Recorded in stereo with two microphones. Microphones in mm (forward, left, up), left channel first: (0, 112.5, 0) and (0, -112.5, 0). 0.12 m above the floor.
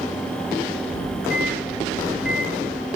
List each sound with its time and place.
0.9 s a microwave: 5° right (ahead or behind), 1.1 m